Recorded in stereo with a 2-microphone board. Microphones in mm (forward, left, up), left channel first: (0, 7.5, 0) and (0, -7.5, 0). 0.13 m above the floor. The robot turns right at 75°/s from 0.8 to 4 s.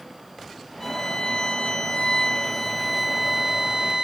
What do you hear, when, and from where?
0.8 s a violin: 20° left, 0.6 m; by 4.0 s 100° right, 0.6 m